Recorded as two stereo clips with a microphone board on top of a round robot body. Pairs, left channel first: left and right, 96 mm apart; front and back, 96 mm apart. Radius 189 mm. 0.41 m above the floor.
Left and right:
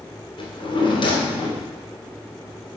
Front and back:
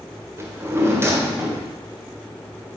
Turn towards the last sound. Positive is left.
turn(degrees=115)